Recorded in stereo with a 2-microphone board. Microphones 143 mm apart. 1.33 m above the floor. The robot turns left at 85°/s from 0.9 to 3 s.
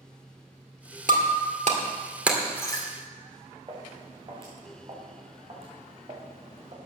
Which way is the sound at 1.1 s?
60° right (ahead or behind).